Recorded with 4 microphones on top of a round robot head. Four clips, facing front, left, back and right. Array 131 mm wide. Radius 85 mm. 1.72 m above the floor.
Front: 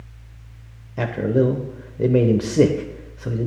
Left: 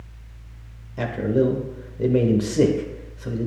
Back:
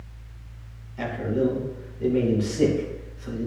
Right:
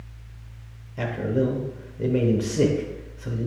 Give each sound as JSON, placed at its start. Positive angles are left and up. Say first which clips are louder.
{"t": 1.0, "sound": "a man speaking", "louder": "left 3 dB, front 5 dB", "azimuth_deg": 10, "distance_m": 1.0}